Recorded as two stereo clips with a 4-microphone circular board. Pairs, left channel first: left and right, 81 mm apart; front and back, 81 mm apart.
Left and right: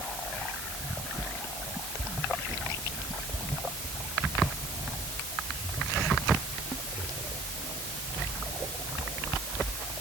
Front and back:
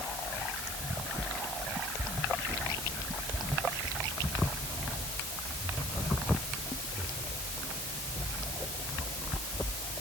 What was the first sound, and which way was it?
Only background noise.